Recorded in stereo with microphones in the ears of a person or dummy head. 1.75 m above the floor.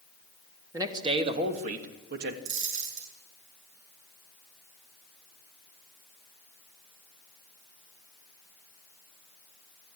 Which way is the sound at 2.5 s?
75° right (ahead or behind).